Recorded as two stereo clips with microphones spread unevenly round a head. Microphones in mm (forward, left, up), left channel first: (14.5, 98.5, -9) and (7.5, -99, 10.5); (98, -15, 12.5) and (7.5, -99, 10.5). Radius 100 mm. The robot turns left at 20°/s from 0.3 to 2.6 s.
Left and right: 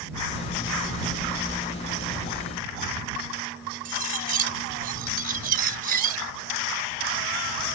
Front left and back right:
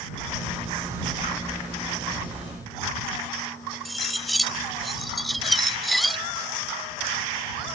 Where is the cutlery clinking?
45° right.